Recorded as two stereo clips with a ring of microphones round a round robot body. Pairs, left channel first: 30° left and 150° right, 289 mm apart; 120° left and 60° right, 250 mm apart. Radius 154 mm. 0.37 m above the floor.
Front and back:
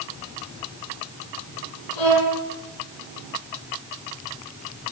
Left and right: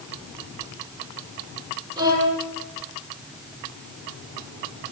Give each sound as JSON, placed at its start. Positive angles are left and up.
{"t": 2.0, "sound": "a violin", "azimuth_deg": 15, "distance_m": 9.0}